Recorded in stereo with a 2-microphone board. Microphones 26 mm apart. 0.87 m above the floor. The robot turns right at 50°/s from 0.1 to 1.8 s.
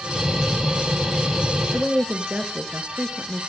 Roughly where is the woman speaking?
Right.